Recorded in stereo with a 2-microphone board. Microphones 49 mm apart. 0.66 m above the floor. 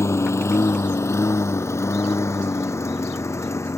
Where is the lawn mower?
70° left (ahead or behind).